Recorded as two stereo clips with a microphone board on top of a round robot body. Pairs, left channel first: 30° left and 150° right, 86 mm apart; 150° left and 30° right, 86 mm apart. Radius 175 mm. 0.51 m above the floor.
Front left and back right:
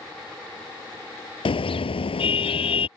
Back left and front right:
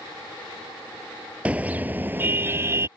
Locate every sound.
1.4 s a car horn: 45° left; by 2.9 s 30° left